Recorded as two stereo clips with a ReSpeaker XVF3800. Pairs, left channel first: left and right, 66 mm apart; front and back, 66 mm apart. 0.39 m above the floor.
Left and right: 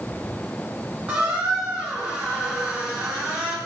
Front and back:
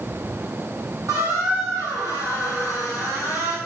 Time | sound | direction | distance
1.1 | a squeak | 160° right | 1.4 m